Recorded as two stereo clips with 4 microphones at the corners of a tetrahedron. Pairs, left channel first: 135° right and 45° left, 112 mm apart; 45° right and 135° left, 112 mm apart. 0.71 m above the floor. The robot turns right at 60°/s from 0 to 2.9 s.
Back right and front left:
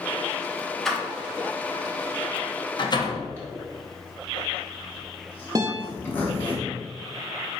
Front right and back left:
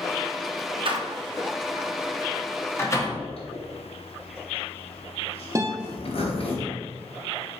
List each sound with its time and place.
0.8 s a door slam: 140° left, 0.7 m; by 3.2 s 95° right, 0.7 m
3.4 s a zipper: 65° right, 1.2 m
5.5 s a guitar: 90° left, 0.6 m